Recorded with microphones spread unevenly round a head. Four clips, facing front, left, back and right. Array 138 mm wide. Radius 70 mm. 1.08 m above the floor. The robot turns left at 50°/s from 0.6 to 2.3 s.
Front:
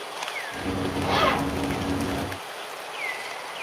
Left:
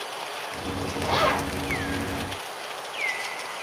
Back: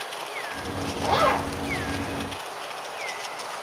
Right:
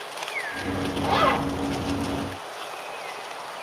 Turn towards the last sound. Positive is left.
turn(degrees=155)